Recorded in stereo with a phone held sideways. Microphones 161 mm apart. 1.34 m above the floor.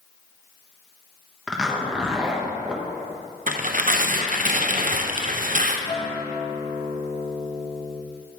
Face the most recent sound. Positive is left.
turn(degrees=30)  # may be behind; listen again after turning